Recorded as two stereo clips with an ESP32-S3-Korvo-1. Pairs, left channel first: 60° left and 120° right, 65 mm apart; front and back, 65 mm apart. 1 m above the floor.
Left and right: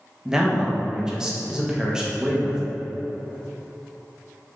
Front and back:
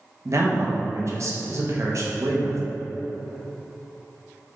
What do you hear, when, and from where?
0.2 s a man speaking: 165° left, 0.8 m